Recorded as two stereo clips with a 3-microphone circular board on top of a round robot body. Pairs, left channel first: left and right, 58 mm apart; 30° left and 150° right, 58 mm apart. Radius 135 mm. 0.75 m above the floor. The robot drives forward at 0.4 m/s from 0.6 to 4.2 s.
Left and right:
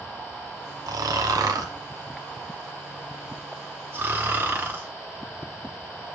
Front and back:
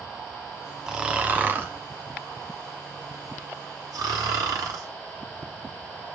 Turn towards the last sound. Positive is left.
turn(degrees=-145)